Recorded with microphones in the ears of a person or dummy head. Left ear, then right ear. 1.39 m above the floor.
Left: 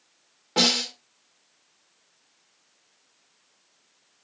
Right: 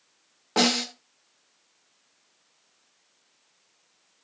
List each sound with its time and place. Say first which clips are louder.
0.6 s a snare drum: left 2 dB; 35° right (ahead or behind), 2.0 m